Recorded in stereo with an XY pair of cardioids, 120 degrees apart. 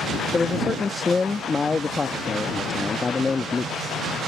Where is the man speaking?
25° left.